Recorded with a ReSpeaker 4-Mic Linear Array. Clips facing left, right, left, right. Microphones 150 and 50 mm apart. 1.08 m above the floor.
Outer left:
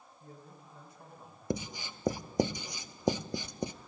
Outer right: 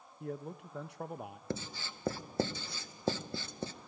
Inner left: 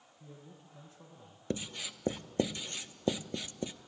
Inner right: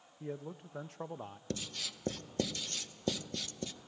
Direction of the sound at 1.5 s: 15° left (ahead or behind).